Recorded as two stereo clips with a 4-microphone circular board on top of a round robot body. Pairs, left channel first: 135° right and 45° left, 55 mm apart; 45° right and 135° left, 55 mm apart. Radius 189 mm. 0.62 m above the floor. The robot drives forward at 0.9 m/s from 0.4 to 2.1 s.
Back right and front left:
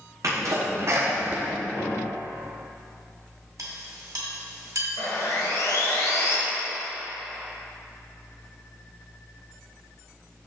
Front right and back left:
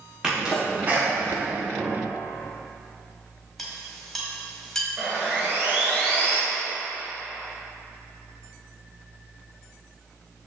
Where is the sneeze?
60° left, 1.5 m; by 1.5 s 100° left, 1.4 m.